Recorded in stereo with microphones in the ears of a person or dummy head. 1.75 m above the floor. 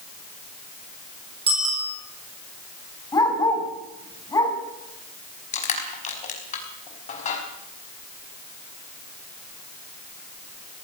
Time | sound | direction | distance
1.5 | a bicycle bell | 30° right (ahead or behind) | 7.5 m
3.1 | a dog barking | 20° left (ahead or behind) | 5 m
5.5 | crushing | 35° left (ahead or behind) | 5 m